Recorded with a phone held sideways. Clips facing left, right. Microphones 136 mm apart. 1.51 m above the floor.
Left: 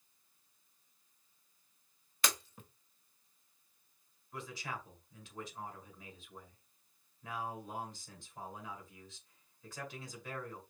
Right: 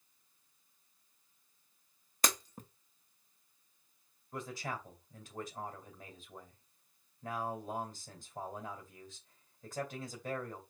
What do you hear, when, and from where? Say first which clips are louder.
2.2 s breaking glass: right 3 dB; 40° right (ahead or behind), 1.0 m
4.3 s a man speaking: right 3 dB; 45° right (ahead or behind), 2.5 m